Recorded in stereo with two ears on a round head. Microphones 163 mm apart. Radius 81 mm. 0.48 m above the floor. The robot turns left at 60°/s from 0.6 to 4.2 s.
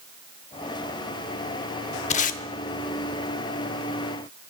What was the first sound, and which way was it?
Tape being pulled, 40° left (ahead or behind).